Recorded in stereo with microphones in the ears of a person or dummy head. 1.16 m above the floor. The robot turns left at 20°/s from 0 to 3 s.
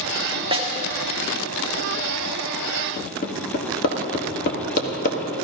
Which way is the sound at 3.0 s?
55° left (ahead or behind).